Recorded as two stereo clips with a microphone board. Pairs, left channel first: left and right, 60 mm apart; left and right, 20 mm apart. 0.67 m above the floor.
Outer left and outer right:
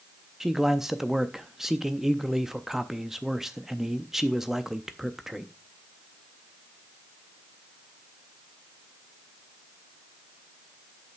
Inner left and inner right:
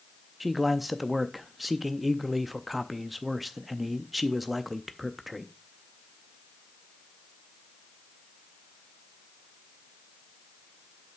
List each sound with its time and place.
0.4 s a man speaking: 5° right (ahead or behind), 0.5 m